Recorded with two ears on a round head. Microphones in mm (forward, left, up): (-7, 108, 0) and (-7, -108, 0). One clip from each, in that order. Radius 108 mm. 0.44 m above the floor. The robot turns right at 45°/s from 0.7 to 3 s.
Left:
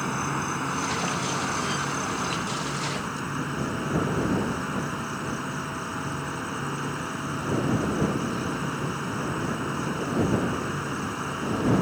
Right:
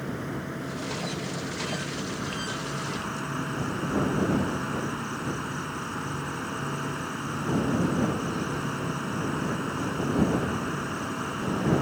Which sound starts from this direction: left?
An insect, at 0.0 s.